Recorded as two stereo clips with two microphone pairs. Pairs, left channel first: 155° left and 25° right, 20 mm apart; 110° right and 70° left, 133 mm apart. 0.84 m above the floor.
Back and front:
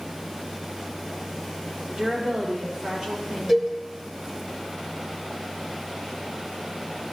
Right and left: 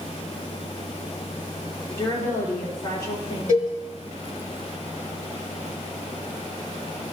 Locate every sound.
1.9 s a woman speaking: 50° right, 2.5 m
3.5 s a cowbell: 90° right, 1.5 m